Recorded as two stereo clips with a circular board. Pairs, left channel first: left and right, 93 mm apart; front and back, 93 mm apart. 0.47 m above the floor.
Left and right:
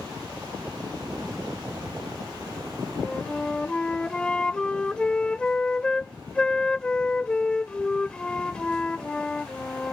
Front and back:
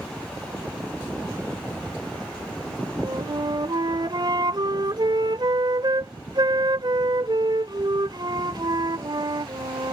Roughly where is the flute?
Behind.